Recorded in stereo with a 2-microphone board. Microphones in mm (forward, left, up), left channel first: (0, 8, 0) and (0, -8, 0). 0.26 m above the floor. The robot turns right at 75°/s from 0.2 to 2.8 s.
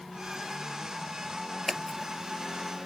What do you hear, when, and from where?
1.7 s scissors: 5° right (ahead or behind); by 2.9 s 80° right